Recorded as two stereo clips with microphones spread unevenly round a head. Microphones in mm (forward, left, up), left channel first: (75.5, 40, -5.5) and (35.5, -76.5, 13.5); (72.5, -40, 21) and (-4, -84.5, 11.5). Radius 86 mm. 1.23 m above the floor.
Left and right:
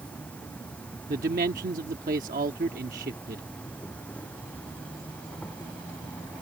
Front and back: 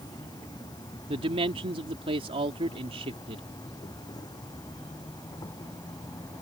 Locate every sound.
0.0 s an insect: 10° right
1.1 s a man speaking: 145° right